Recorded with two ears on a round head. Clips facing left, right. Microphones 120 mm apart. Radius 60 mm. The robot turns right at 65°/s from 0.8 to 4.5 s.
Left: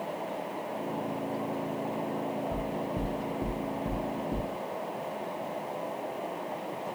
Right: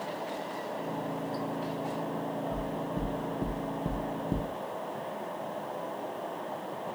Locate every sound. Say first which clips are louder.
2.5 s knocking: left 1 dB; 25° left (ahead or behind), 0.7 m; by 4.5 s 30° right (ahead or behind), 0.7 m